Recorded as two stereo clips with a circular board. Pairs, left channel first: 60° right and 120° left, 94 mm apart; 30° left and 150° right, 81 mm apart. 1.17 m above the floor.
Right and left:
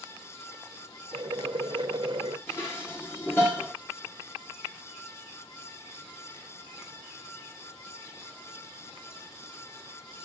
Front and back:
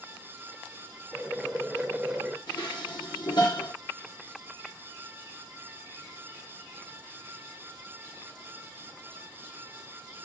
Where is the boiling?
135° left, 0.8 m.